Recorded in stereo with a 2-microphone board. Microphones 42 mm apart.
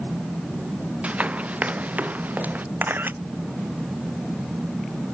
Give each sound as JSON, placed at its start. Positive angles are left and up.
{"t": 1.0, "sound": "running footsteps", "side_deg": -30}
{"t": 2.8, "sound": "a camera shutter", "side_deg": -50}